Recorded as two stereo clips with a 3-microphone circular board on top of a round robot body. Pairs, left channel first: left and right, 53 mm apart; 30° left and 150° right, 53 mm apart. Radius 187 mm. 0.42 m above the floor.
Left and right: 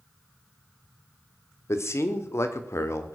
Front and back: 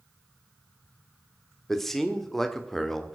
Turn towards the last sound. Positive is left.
turn(degrees=115)